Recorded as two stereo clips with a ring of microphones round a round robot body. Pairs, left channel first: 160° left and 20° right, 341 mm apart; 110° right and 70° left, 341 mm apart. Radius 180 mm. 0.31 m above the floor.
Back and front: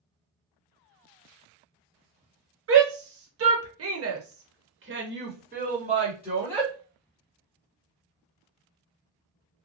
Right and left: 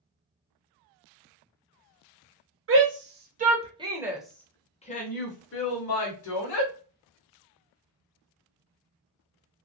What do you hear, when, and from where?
2.7 s a shout: 20° left, 1.4 m; by 6.7 s 100° right, 1.5 m